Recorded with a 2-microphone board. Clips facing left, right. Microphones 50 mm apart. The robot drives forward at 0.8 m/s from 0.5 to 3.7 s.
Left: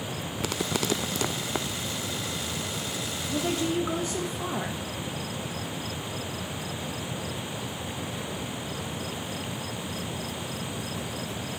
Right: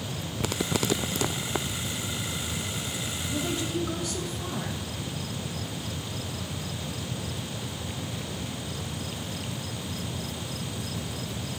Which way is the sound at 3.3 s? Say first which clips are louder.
Left 3 dB; 25° left (ahead or behind).